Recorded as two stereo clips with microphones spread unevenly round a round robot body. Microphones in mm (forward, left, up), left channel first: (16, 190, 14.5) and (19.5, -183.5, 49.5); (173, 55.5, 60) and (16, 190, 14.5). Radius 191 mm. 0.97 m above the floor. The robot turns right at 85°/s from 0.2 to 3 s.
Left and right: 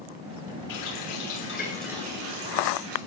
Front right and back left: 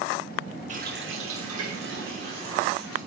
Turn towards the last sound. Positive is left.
turn(degrees=-80)